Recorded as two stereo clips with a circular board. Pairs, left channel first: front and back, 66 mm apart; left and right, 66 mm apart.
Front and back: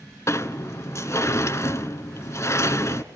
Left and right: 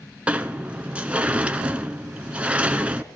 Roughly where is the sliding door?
Ahead.